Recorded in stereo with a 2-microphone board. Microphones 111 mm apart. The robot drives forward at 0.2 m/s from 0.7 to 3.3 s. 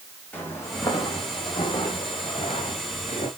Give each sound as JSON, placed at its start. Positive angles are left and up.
{"t": 0.3, "sound": "footsteps", "side_deg": 15, "distance_m": 3.5}